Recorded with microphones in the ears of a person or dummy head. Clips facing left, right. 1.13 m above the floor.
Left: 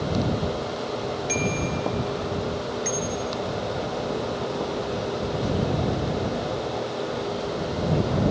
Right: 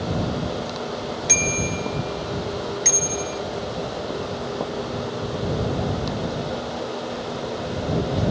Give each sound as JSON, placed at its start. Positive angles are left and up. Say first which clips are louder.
{"t": 1.3, "sound": "a bicycle bell", "louder": "even", "side_deg": -65}